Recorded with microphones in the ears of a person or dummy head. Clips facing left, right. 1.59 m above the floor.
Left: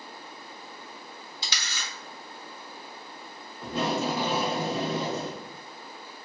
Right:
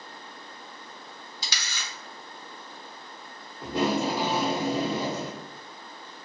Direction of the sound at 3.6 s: 15° right (ahead or behind).